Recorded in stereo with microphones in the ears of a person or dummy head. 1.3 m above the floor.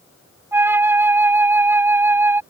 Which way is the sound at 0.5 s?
15° right (ahead or behind).